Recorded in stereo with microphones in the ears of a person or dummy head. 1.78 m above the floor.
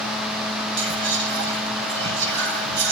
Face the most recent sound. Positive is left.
turn(degrees=-60)  # may be behind; listen again after turning